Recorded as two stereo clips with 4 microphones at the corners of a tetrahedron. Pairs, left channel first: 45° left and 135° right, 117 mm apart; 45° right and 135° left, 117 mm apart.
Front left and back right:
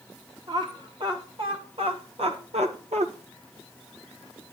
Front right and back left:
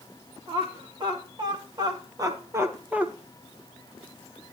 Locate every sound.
0.5 s laughter: straight behind, 4 m; by 3.1 s 145° right, 1.6 m